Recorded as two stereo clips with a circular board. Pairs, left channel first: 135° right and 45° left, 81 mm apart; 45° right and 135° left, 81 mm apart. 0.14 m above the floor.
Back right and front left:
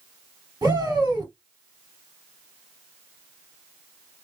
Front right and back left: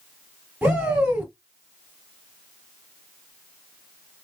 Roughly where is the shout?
Ahead left.